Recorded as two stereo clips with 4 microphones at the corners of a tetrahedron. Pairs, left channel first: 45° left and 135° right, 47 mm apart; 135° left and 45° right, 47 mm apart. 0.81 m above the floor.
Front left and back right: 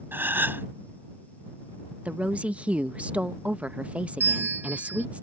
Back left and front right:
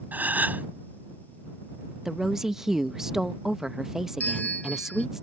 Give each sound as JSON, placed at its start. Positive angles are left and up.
{"t": 0.1, "sound": "a gasp", "azimuth_deg": -95}
{"t": 2.0, "sound": "a woman speaking", "azimuth_deg": -115}
{"t": 4.2, "sound": "a bell", "azimuth_deg": -170}